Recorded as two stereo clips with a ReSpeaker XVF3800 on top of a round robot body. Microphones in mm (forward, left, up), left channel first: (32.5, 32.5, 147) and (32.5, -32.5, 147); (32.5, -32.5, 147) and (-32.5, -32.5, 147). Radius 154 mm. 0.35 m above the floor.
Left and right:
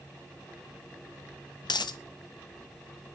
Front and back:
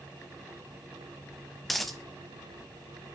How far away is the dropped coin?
About 0.9 m.